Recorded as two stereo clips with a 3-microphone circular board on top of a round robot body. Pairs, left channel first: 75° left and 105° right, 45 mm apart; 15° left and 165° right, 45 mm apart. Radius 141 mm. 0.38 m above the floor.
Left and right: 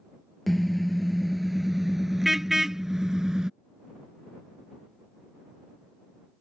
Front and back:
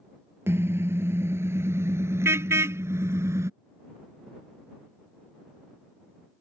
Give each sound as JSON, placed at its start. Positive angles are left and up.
{"t": 0.5, "sound": "a car horn", "azimuth_deg": 165}